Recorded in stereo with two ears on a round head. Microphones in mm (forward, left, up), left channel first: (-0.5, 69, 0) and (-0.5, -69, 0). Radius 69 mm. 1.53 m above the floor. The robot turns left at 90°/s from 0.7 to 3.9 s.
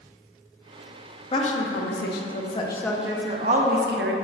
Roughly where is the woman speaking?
Behind left.